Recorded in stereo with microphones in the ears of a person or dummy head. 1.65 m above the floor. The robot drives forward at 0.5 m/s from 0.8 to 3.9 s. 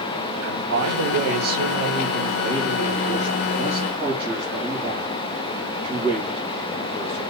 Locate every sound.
0.4 s a man speaking: 70° right (ahead or behind), 1.0 m; by 7.2 s 30° right (ahead or behind), 2 m